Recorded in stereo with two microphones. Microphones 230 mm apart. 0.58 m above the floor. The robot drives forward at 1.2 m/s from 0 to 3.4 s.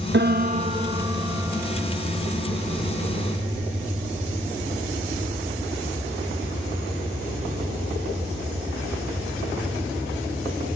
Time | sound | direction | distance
0.1 | a piano | 50° right (ahead or behind) | ?